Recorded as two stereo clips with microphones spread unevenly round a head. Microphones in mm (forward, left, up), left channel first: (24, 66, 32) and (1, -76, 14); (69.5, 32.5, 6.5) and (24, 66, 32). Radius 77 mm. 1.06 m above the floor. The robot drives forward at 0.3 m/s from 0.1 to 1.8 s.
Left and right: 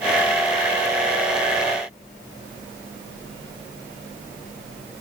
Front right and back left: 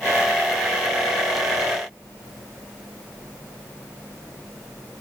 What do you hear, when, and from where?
Only background noise.